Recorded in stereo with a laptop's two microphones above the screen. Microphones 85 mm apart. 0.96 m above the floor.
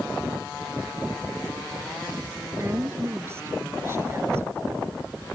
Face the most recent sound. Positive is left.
turn(degrees=-30)  # may be behind; listen again after turning